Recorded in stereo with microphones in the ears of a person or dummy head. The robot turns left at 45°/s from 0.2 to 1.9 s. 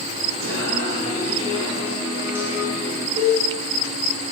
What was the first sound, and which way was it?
Singing, 105° right.